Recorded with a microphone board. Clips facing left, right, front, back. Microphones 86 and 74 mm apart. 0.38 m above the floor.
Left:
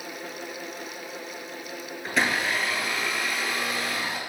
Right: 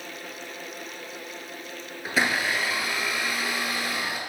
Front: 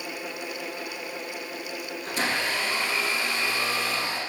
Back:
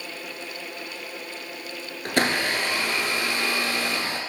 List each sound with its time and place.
2.0 s a blender: 175° right, 1.0 m